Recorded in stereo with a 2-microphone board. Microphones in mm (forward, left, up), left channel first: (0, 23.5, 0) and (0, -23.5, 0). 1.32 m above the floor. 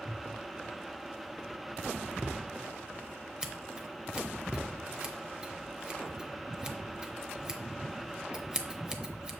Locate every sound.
3.4 s scissors: 20° right (ahead or behind), 0.7 m